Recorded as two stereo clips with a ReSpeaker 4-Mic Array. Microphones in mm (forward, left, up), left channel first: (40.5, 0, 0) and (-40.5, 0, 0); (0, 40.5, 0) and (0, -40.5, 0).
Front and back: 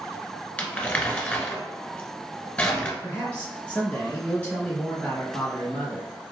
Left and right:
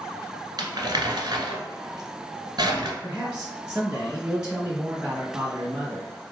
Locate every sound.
0.6 s crumpling: 70° right, 1.2 m
3.0 s a man speaking: 35° right, 0.9 m